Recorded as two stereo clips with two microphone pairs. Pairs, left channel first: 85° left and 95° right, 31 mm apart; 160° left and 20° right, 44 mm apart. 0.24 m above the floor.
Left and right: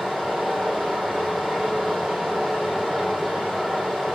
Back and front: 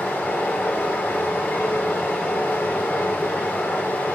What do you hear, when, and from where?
0.0 s running water: 150° right, 2.5 m